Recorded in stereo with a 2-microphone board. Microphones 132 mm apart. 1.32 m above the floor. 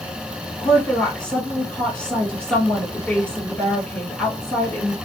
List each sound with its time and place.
0.6 s a woman speaking: 10° left (ahead or behind), 1.5 m